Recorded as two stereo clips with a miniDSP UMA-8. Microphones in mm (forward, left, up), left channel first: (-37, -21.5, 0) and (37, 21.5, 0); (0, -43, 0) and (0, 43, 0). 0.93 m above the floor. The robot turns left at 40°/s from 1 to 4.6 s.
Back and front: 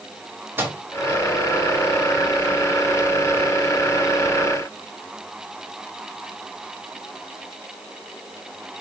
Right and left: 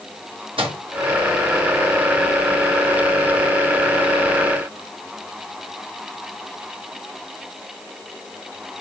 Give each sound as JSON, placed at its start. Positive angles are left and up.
{"t": 0.6, "sound": "a microwave", "azimuth_deg": 95, "distance_m": 1.1}